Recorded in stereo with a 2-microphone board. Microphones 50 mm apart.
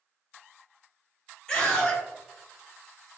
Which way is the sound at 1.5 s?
15° left (ahead or behind).